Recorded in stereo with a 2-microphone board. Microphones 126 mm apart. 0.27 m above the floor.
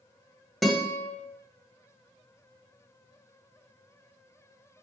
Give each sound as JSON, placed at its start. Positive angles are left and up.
{"t": 0.6, "sound": "a guitar", "side_deg": 0, "distance_m": 0.9}